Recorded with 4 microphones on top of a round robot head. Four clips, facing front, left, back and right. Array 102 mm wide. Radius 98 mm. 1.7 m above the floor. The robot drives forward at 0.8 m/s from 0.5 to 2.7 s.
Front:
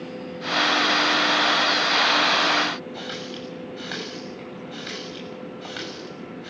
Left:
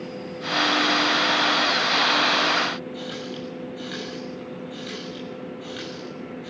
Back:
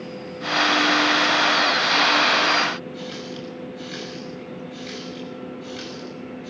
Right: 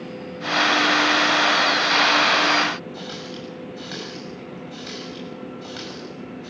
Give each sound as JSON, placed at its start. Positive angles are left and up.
{"t": 2.9, "sound": "a running tap", "azimuth_deg": -20, "distance_m": 6.5}